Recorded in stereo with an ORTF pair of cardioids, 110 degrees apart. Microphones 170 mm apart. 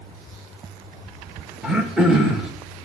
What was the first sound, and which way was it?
Throat clearing, 5° right.